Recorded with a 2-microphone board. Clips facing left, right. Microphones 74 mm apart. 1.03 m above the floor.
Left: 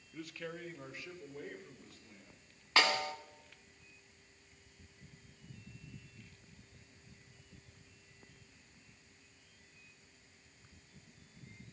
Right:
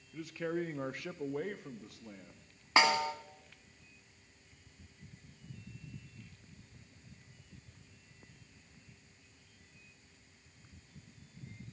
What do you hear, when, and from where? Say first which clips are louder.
0.1 s a man speaking: right 8 dB; 5° left (ahead or behind), 0.5 m; by 2.5 s 80° right, 1.8 m
2.8 s a snare drum: right 4 dB; 25° right (ahead or behind), 1.4 m